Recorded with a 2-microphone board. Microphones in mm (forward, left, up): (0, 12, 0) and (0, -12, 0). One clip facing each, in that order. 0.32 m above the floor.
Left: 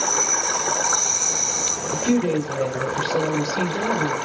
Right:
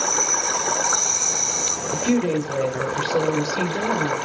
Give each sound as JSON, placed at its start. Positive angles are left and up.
{"t": 1.9, "sound": "a woman speaking", "side_deg": -35, "distance_m": 1.1}